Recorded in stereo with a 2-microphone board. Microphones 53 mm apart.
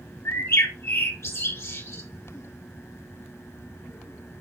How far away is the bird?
About 4.5 m.